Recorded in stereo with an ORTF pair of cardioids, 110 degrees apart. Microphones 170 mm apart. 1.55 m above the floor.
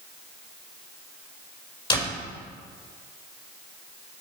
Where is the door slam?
30° left, 4.5 m.